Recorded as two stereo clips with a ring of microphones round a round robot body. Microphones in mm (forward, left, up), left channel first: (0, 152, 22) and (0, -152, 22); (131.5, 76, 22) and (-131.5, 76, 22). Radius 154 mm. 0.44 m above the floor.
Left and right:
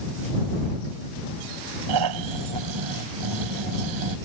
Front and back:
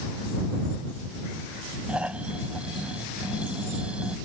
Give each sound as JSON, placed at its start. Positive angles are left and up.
{"t": 1.9, "sound": "snoring", "azimuth_deg": -95}